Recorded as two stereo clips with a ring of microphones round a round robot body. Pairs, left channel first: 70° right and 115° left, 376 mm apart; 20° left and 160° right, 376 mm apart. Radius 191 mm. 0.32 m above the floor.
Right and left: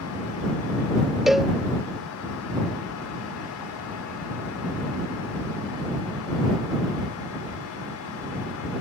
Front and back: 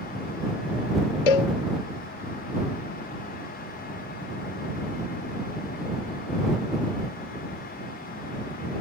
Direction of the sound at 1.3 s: 25° left.